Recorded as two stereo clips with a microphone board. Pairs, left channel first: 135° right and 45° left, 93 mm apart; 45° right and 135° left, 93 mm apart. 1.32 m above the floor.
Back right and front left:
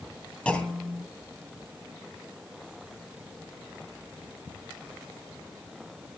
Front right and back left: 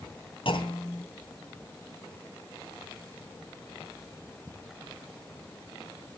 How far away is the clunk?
About 3 m.